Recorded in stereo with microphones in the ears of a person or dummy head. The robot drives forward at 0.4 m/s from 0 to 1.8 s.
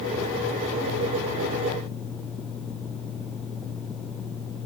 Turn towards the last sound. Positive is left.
No sound to turn to.